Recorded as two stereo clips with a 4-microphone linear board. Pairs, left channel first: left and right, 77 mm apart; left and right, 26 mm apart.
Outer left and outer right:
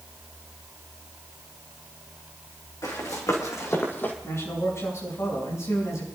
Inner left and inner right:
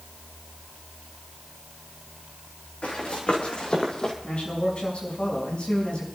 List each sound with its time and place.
2.8 s running footsteps: 50° left (ahead or behind), 3.5 m; by 4.1 s 20° left (ahead or behind), 1.9 m
4.2 s a man speaking: 40° left (ahead or behind), 6 m